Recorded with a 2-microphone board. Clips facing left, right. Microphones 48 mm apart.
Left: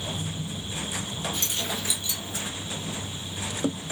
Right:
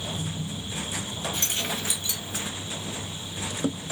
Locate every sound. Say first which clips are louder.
1.3 s keys jangling: right 1 dB; 50° right (ahead or behind), 1.9 m; by 2.5 s 70° right (ahead or behind), 2 m